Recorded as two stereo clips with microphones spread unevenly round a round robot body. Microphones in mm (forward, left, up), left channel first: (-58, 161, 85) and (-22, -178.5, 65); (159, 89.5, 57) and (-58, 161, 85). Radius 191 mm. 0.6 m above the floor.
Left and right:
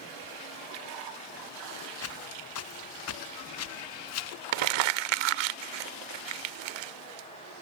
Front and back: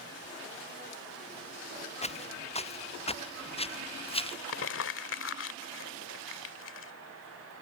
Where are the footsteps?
45° left; by 4.4 s 50° left.